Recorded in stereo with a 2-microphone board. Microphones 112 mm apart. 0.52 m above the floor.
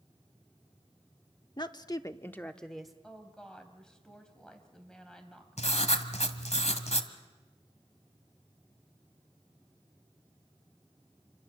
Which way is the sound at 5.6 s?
80° left.